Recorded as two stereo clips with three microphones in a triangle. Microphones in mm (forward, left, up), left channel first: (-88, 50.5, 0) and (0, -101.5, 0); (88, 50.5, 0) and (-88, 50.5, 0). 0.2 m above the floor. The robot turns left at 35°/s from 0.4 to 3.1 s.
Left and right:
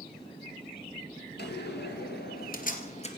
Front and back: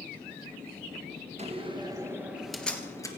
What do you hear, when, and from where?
1.4 s a door slam: 130° left, 3 m; by 3.1 s 70° left, 3 m